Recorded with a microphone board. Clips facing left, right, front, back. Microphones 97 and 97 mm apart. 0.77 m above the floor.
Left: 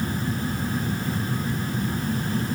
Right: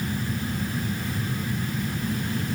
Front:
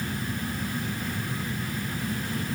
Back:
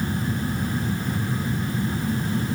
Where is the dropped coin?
No dropped coin in this recording.